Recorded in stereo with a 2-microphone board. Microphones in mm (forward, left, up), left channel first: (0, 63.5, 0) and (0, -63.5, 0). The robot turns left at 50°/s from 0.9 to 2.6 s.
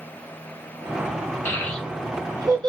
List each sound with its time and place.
1.4 s a child speaking: 20° left (ahead or behind), 1.1 m; by 2.7 s 35° right (ahead or behind), 1.1 m